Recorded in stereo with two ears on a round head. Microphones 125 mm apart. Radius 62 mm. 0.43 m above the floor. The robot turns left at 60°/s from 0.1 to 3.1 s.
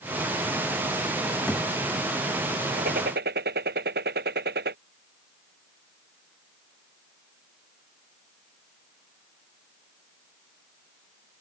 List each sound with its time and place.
1.5 s a thud: 5° left (ahead or behind); by 1.7 s 20° left (ahead or behind)
2.8 s a gunshot: 60° right (ahead or behind); by 4.8 s 80° right